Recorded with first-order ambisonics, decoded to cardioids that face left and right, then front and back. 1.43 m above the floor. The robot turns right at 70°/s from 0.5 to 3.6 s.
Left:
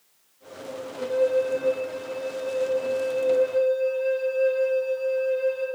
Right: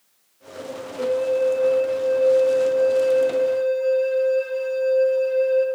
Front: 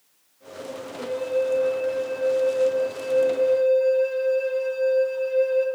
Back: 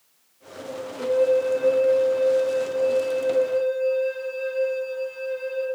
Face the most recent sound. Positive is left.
turn(degrees=-60)